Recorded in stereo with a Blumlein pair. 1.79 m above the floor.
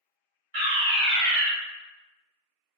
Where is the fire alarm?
40° right, 1.1 m.